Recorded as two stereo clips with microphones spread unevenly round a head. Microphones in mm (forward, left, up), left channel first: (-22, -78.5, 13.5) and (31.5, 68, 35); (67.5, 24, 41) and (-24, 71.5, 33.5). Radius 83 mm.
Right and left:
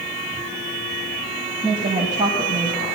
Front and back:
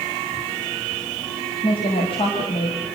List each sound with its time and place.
1.6 s a woman speaking: 10° left, 6 m; by 2.9 s straight ahead, 6 m